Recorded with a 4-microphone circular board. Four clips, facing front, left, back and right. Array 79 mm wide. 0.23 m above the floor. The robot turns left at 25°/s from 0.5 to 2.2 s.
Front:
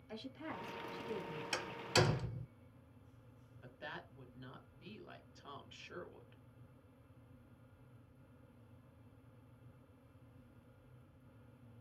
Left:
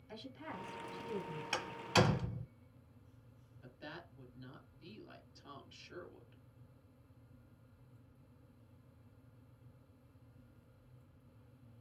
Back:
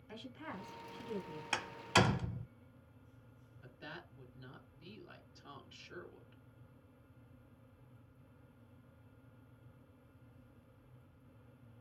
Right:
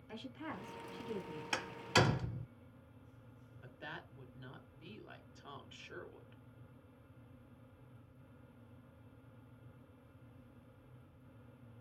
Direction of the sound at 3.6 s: 55° right.